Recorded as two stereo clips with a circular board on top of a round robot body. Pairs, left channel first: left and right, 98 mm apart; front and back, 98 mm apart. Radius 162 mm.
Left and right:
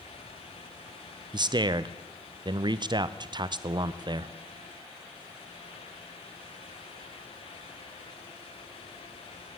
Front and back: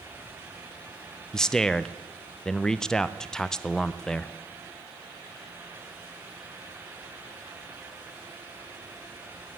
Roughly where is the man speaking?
Right.